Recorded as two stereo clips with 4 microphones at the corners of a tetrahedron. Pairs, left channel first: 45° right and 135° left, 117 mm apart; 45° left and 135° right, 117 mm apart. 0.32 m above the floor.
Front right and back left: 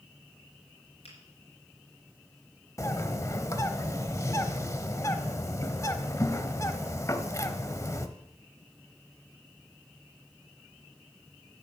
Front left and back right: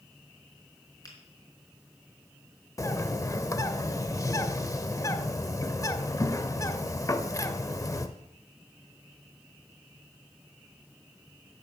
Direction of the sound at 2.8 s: Straight ahead.